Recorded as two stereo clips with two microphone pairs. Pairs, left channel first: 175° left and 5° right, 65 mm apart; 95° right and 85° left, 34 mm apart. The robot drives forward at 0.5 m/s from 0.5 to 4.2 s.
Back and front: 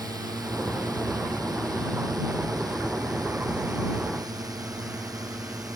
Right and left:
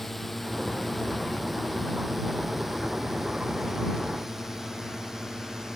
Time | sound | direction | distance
0.0 | a drone | 10° right | ?